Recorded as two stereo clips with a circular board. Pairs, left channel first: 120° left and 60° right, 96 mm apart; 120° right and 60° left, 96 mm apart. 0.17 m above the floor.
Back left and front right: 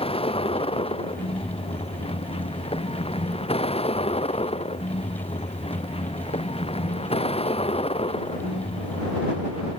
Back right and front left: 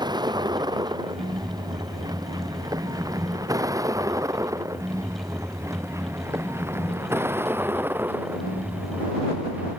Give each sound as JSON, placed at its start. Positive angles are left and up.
{"t": 0.0, "sound": "a vehicle", "azimuth_deg": 105}